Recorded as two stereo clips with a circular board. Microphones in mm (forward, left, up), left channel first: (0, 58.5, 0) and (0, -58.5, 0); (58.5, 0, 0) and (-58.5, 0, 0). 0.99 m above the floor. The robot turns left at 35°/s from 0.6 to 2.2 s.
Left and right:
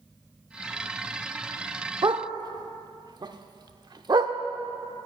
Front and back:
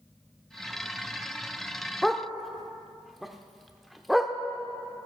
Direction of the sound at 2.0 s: 85° right.